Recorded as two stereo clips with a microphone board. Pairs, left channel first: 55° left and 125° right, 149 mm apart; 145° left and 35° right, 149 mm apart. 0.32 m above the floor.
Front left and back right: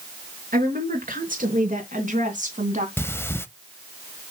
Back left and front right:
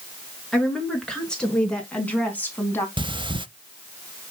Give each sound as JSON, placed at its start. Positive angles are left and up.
{"t": 0.5, "sound": "a woman speaking", "azimuth_deg": -125, "distance_m": 4.5}
{"t": 3.0, "sound": "breathing", "azimuth_deg": -5, "distance_m": 0.6}